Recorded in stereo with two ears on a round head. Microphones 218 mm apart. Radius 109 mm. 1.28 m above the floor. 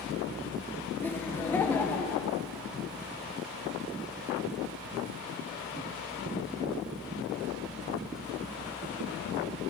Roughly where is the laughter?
Centre.